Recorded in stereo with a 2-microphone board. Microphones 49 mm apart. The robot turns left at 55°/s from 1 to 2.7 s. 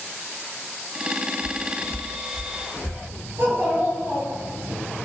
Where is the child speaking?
50° right (ahead or behind), 1.3 m.